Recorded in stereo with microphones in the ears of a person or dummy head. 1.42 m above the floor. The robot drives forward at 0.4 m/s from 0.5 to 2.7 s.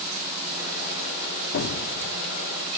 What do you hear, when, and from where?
1.5 s an explosion: 70° left (ahead or behind), 1.1 m; by 2.3 s 80° left, 1.0 m